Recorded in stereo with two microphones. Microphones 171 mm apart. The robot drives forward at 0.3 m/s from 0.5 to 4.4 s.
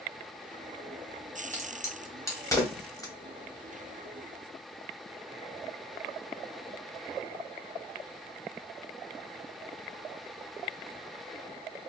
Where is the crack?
15° left (ahead or behind), 1.4 m; by 3.1 s 20° left (ahead or behind), 0.9 m.